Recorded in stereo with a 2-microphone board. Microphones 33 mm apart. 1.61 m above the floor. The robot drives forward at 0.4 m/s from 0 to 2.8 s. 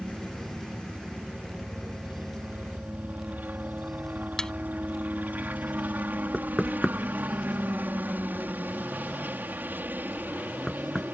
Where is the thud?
20° left (ahead or behind).